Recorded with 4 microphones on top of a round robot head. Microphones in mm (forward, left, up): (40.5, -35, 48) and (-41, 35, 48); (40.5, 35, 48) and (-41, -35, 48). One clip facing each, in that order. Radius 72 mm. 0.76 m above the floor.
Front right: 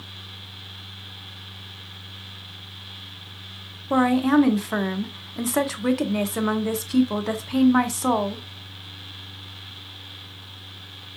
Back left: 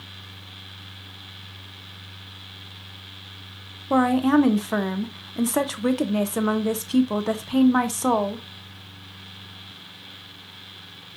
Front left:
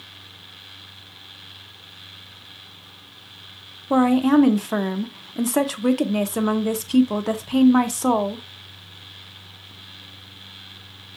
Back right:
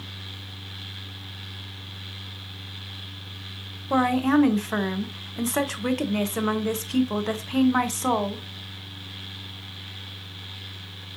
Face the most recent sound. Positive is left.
turn(degrees=70)